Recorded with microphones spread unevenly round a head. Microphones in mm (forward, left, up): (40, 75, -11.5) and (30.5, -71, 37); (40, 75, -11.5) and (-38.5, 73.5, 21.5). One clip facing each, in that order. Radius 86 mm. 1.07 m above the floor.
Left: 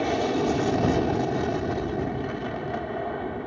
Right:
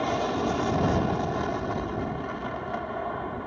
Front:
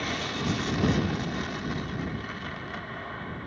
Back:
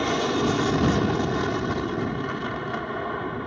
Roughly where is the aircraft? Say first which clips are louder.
Left 3 dB, back 9 dB; behind left.